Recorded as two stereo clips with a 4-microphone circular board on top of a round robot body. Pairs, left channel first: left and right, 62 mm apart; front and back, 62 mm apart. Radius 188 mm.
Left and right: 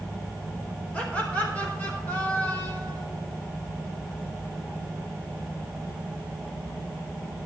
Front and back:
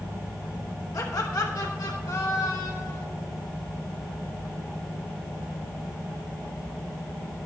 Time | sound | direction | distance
0.9 | laughter | 25° left | 3.5 m